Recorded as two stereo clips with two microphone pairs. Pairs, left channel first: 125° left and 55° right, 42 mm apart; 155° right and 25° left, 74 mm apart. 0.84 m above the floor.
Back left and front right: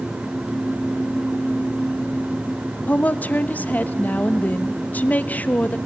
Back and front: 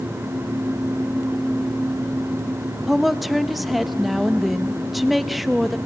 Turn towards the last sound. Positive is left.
turn(degrees=110)